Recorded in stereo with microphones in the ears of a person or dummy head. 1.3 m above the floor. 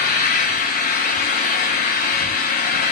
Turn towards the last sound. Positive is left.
turn(degrees=35)  # may be behind; listen again after turning